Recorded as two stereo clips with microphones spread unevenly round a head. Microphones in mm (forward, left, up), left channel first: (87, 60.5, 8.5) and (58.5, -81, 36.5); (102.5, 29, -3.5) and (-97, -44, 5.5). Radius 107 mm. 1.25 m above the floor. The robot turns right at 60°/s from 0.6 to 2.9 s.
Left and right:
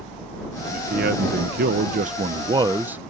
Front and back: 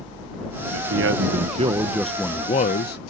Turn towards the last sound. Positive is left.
turn(degrees=-20)